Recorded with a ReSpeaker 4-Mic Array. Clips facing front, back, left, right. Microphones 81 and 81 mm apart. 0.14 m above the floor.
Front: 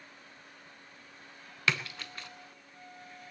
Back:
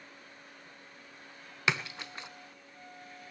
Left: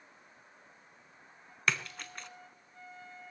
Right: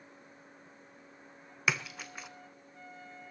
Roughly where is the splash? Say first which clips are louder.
Even, even; behind.